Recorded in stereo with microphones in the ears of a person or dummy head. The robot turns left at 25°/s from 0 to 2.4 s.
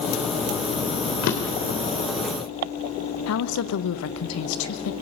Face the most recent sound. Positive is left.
turn(degrees=75)  # may be behind; listen again after turning